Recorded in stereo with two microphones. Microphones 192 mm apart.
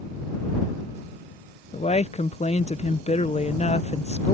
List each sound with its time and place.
1.7 s a woman speaking: 35° left (ahead or behind)